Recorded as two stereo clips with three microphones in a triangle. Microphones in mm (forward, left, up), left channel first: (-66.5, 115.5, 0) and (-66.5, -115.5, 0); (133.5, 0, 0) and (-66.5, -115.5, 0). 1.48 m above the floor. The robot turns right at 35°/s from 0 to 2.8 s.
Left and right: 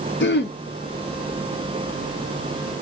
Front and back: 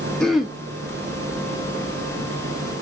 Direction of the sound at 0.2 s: 115° left.